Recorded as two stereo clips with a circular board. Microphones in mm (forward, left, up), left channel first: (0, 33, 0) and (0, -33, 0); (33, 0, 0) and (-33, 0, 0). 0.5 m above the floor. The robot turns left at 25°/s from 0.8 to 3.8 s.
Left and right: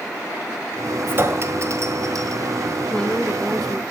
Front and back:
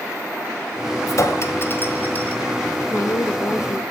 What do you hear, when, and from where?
1.1 s a clink: 35° right, 1.7 m; by 2.4 s 70° right, 1.7 m
2.9 s a woman speaking: 20° left, 1.1 m; by 3.8 s straight ahead, 1.1 m